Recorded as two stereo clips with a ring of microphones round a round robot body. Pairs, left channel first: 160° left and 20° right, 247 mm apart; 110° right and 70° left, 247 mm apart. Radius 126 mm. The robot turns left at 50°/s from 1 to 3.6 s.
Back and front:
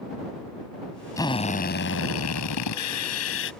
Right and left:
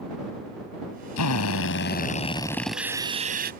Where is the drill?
125° right; by 3.5 s 120° left.